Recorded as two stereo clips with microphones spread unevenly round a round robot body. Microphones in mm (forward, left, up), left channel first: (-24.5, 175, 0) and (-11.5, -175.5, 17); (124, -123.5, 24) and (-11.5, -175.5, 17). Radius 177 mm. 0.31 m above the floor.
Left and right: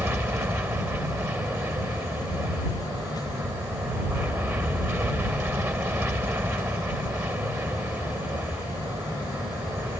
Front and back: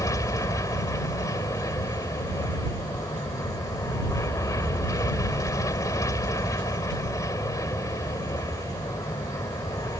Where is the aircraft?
10° right.